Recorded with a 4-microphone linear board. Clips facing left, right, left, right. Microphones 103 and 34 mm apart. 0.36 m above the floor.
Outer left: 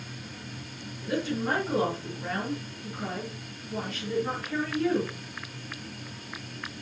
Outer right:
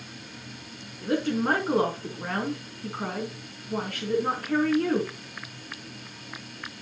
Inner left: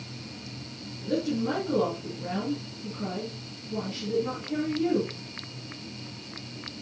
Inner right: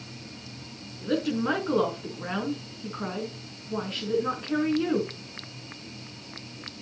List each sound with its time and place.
1.0 s a woman speaking: 60° right (ahead or behind), 4 m